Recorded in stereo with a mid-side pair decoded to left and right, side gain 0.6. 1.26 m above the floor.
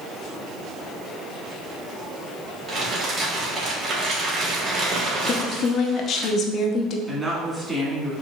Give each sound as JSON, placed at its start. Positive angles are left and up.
{"t": 2.7, "sound": "crumpling", "azimuth_deg": -40, "distance_m": 1.6}
{"t": 5.3, "sound": "a woman speaking", "azimuth_deg": 55, "distance_m": 0.6}
{"t": 7.1, "sound": "a woman speaking", "azimuth_deg": -10, "distance_m": 1.7}